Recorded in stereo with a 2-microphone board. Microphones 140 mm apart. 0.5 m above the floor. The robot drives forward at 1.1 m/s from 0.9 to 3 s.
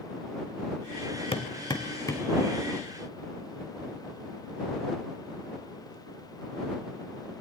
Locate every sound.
1.3 s hammering: 45° left (ahead or behind), 0.9 m; by 2.3 s 20° left (ahead or behind), 1.8 m